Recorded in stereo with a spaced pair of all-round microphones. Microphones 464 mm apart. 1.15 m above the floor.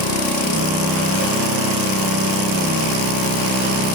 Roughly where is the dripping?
No dripping in this recording.